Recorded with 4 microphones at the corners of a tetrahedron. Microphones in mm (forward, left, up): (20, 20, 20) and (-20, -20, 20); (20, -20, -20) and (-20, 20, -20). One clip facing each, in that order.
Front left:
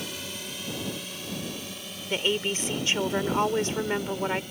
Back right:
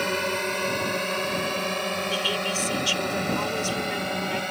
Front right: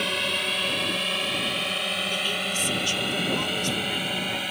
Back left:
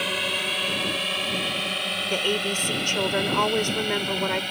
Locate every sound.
0.0 s a drone: 140° right; by 4.5 s 130° right
2.1 s a woman speaking: 100° left